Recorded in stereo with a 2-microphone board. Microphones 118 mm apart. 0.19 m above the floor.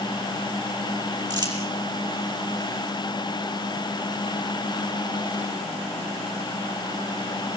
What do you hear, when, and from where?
1.3 s crumpling: 40° right (ahead or behind), 6.5 m